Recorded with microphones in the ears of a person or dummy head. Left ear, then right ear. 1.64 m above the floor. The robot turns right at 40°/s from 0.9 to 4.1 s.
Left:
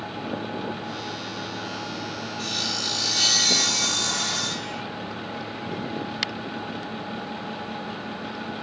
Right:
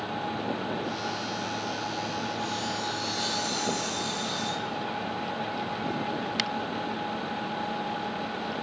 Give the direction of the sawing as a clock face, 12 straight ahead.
11 o'clock.